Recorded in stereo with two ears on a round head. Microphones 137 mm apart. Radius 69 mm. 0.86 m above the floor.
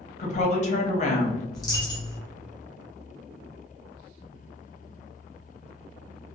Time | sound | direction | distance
0.2 | a woman speaking | 50° left (ahead or behind) | 0.9 m
1.5 | a dropped coin | 25° left (ahead or behind) | 1.2 m